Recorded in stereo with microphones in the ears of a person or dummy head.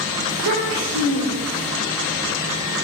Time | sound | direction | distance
0.3 | a child speaking | 70° right (ahead or behind) | 2.5 m